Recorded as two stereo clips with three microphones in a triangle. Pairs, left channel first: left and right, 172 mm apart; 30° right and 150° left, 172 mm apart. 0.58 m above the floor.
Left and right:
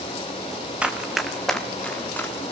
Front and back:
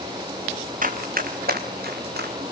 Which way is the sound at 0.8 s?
175° right.